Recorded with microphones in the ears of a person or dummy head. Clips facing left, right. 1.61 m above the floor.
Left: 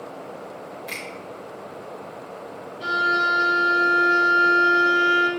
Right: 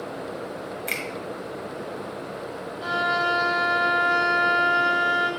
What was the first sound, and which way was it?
A finger snap, 40° right (ahead or behind).